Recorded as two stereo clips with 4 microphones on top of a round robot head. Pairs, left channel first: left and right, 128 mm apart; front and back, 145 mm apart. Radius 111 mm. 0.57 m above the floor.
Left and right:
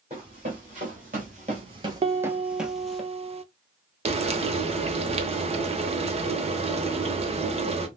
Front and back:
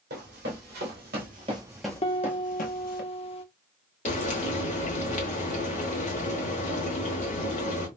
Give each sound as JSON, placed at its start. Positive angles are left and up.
{"t": 0.1, "sound": "running footsteps", "azimuth_deg": -150, "distance_m": 1.6}
{"t": 2.0, "sound": "a piano", "azimuth_deg": -50, "distance_m": 0.5}
{"t": 4.0, "sound": "frying", "azimuth_deg": -50, "distance_m": 0.8}